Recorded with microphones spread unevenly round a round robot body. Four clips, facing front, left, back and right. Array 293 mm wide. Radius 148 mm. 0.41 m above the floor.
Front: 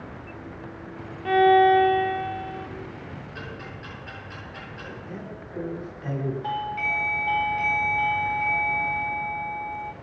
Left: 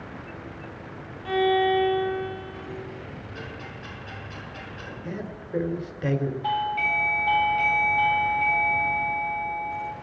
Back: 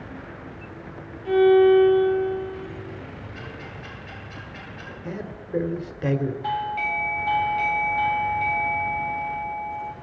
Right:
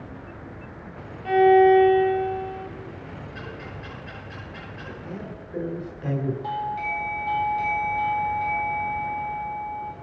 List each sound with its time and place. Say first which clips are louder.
1.2 s a violin: right 7 dB, back 1 dB; 5° right, 1.3 m
3.4 s ticking: right 1 dB, even; 40° left, 9 m
5.0 s a man speaking: left 4 dB, back 3 dB; 155° left, 1.8 m
6.4 s a doorbell: left 2 dB, back 2 dB; 160° left, 1.9 m